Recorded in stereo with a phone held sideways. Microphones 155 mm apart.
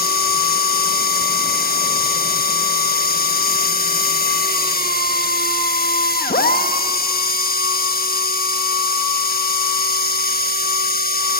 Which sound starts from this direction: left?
A machine running, at 0.0 s.